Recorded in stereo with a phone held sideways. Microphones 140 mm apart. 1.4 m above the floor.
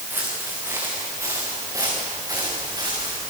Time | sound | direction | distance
0.1 | footsteps | 15° right (ahead or behind) | 7 m